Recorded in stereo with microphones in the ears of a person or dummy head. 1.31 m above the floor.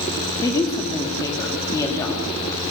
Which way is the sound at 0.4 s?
20° left (ahead or behind).